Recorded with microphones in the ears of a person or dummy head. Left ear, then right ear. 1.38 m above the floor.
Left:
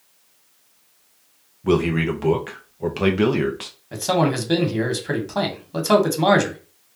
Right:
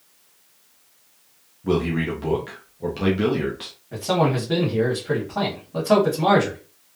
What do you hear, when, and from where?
1.6 s a man speaking: 35° left (ahead or behind), 0.5 m
3.9 s a man speaking: 85° left, 1.3 m